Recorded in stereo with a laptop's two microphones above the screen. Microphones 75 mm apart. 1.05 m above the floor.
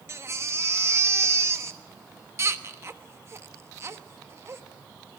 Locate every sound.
0.1 s a baby crying: 35° right (ahead or behind), 1.1 m